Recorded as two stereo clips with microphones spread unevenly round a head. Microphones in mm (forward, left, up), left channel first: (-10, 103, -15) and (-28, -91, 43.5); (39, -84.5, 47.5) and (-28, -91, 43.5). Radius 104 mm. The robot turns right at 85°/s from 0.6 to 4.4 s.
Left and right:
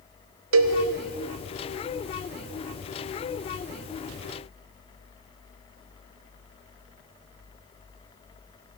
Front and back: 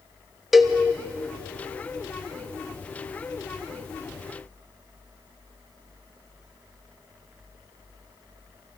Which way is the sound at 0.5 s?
90° right.